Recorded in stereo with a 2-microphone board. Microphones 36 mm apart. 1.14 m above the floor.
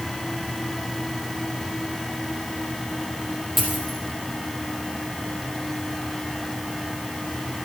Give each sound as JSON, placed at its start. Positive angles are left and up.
{"t": 3.6, "sound": "a dropped coin", "side_deg": -5, "distance_m": 5.0}